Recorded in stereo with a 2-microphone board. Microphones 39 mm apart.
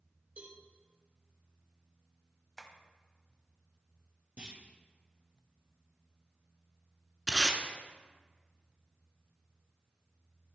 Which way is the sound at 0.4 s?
50° right (ahead or behind).